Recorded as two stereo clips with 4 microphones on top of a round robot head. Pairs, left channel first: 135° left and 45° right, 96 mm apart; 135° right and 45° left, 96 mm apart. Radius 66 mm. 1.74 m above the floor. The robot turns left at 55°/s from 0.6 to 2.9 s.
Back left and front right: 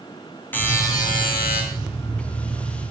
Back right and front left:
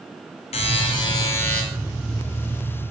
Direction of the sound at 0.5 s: 155° right.